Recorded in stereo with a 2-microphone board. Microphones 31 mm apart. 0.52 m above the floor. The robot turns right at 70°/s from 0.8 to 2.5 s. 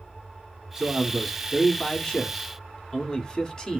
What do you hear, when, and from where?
0.8 s a man speaking: 20° right (ahead or behind), 1.4 m; by 3.8 s 25° left (ahead or behind), 1.4 m